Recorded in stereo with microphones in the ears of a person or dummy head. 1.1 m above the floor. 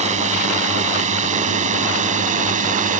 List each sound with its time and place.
0.0 s a drone: 35° right (ahead or behind); by 3.0 s 40° right (ahead or behind)